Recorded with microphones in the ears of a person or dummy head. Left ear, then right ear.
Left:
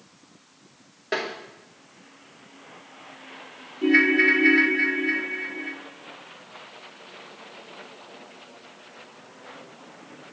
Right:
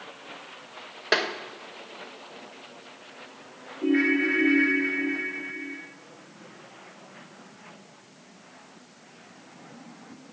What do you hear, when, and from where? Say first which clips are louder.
1.1 s tapping: right 4 dB; 25° right (ahead or behind), 1.0 m
3.8 s a ringtone: left 6 dB; 65° left (ahead or behind), 0.7 m